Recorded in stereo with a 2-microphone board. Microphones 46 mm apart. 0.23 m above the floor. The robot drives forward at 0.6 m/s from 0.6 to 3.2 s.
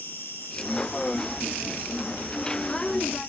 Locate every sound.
0.0 s an insect: 65° left (ahead or behind), 5 m; by 3.3 s 60° left (ahead or behind), 5.5 m